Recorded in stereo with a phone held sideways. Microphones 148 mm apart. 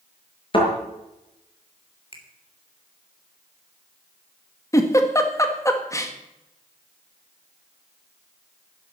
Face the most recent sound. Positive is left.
turn(degrees=20)  # may be behind; listen again after turning